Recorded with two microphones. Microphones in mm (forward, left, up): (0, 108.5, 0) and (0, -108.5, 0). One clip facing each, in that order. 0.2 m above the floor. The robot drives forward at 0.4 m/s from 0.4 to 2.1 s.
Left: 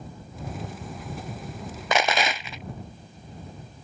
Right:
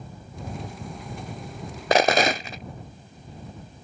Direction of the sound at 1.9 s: 40° right (ahead or behind).